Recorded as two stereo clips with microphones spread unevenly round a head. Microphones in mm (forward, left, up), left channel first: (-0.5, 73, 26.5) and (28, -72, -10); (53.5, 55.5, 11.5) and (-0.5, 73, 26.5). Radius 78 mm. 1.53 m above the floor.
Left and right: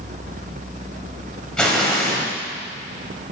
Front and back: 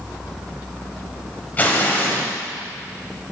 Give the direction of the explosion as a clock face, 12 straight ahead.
10 o'clock.